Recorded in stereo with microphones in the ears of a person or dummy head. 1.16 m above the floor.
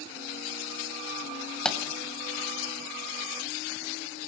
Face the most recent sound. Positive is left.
turn(degrees=5)  # may be behind; listen again after turning